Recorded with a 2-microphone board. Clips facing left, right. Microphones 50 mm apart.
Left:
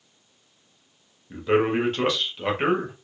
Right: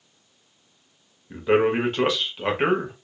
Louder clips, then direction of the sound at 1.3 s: Right 2 dB; 15° right (ahead or behind).